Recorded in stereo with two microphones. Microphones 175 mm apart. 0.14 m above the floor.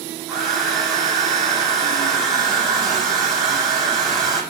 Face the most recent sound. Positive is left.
turn(degrees=0)  # may be behind; listen again after turning